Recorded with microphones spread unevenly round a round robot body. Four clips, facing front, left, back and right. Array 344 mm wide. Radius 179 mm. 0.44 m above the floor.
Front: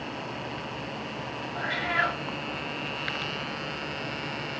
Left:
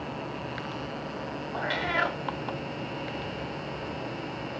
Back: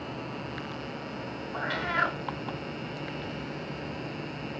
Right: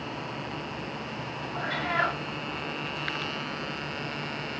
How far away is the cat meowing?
About 0.6 m.